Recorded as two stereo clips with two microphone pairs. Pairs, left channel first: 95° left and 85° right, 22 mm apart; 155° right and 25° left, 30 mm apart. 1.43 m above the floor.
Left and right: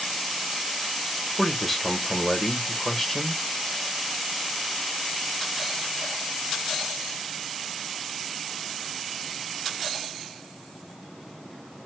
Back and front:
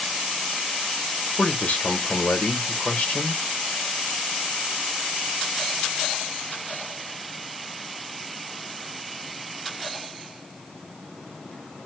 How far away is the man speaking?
About 1.1 m.